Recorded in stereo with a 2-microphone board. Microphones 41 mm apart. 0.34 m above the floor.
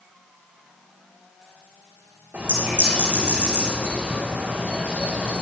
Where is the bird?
45° right (ahead or behind), 4.5 m.